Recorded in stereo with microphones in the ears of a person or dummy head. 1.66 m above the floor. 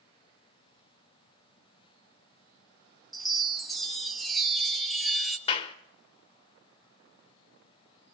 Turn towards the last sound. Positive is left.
turn(degrees=35)  # may be behind; listen again after turning